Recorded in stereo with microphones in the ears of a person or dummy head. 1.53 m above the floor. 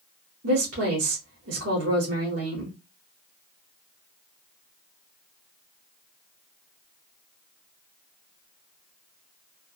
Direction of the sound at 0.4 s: 85° right.